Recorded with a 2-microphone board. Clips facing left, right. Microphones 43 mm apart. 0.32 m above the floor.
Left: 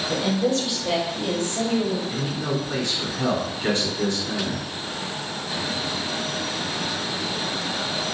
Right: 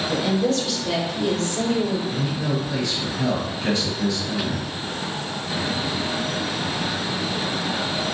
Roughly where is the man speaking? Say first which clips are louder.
Right 1 dB; left.